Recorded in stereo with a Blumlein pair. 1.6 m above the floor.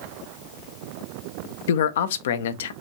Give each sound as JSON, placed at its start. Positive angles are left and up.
{"t": 1.7, "sound": "a man speaking", "azimuth_deg": 60, "distance_m": 0.6}